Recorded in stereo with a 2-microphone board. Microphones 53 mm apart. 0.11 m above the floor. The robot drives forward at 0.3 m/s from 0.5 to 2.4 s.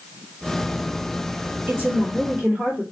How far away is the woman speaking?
About 1.9 m.